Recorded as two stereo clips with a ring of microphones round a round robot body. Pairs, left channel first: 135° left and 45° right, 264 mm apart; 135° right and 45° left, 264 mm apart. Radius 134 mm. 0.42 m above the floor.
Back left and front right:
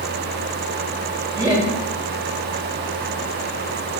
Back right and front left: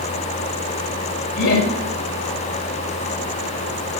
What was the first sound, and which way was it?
Laughter, 115° right.